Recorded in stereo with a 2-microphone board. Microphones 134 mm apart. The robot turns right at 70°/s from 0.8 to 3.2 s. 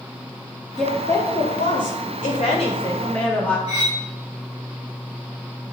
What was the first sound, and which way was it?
A woman speaking, straight ahead.